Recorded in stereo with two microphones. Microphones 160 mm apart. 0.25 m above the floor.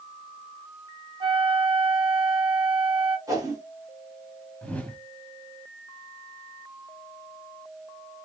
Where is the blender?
No blender in this recording.